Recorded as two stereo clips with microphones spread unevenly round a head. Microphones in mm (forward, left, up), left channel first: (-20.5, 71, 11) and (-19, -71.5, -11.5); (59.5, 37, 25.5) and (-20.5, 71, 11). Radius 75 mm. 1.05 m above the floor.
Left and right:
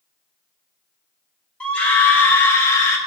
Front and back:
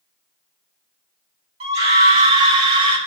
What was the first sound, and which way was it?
A scream, 170° left.